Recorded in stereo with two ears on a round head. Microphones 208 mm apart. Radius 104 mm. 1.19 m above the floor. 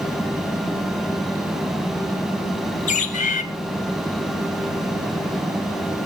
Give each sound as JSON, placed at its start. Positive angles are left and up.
{"t": 2.9, "sound": "a bird", "side_deg": 30, "distance_m": 1.3}